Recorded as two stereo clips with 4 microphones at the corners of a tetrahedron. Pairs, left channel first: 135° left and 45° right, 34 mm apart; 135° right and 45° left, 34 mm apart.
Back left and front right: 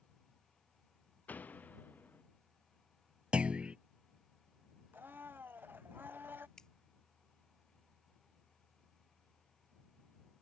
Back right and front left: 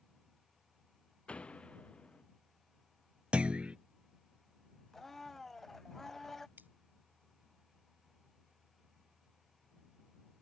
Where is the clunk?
5° left.